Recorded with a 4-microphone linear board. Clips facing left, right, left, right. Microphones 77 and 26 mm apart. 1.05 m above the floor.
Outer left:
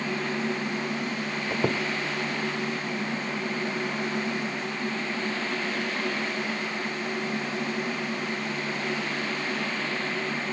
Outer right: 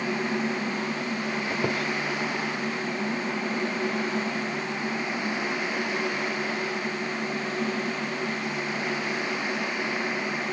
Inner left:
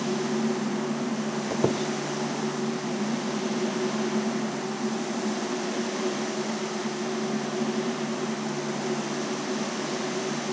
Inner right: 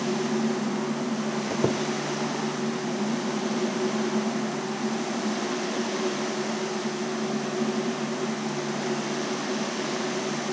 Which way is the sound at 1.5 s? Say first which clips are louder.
Outer left 3 dB, inner left 1 dB; 10° left (ahead or behind).